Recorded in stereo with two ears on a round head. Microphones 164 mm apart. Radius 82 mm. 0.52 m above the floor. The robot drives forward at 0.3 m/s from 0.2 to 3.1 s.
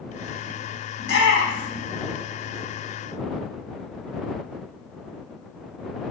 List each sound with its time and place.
1.0 s a shout: 75° left (ahead or behind), 5 m; by 1.9 s 70° left (ahead or behind), 5 m